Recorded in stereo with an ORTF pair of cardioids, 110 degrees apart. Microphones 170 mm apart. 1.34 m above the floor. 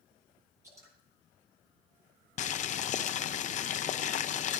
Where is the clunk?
No clunk in this recording.